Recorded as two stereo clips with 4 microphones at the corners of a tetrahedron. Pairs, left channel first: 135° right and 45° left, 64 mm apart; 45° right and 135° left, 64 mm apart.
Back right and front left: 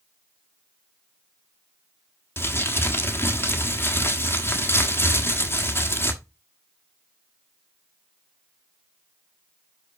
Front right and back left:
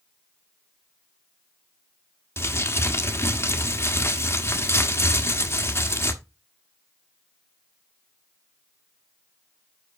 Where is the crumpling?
90° right, 1.2 m.